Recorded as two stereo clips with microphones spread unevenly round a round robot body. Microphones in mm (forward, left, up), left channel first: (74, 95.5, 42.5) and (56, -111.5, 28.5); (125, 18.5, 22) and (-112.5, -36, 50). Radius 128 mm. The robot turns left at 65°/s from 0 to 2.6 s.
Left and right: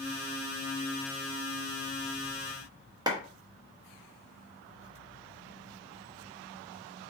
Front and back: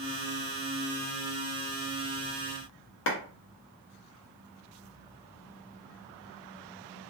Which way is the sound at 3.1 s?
25° right.